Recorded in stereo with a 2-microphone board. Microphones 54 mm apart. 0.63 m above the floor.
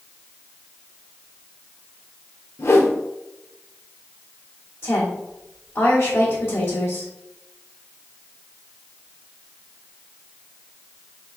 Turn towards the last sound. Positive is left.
turn(degrees=65)  # may be behind; listen again after turning